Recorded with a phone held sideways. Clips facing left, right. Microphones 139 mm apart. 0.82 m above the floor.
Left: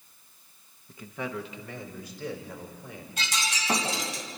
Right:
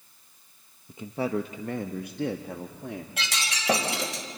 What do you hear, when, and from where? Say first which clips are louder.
0.9 s a man speaking: right 7 dB; 15° right (ahead or behind), 0.5 m; by 3.1 s 70° right (ahead or behind), 1.4 m
3.2 s breaking glass: left 1 dB; 85° right, 2.5 m